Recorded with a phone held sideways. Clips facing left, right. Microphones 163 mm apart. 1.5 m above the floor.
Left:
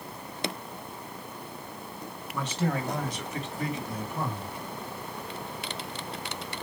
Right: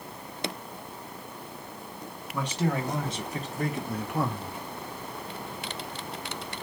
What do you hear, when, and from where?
2.3 s a man speaking: 10° right (ahead or behind), 2 m; by 4.6 s 75° right (ahead or behind), 1.2 m